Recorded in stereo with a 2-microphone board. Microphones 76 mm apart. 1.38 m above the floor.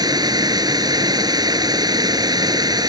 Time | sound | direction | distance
0.0 | running water | 65° right (ahead or behind) | ?